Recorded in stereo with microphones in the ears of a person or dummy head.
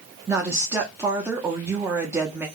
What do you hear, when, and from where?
0.3 s a woman speaking: 20° right (ahead or behind), 0.8 m